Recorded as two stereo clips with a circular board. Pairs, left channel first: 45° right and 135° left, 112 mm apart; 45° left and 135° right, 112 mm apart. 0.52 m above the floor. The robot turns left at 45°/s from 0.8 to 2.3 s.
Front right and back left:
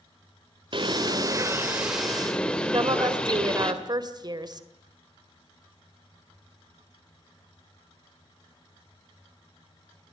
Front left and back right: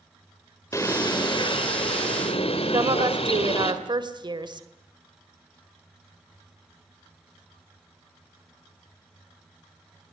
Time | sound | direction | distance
0.7 | a bird | 105° left | 2.5 m
2.7 | a woman speaking | straight behind | 2 m